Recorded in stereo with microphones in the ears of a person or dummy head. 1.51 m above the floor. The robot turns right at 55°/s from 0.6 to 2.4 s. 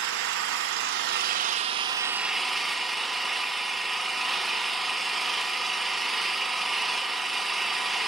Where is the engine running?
100° right, 0.8 m; by 8.1 s straight ahead, 0.8 m.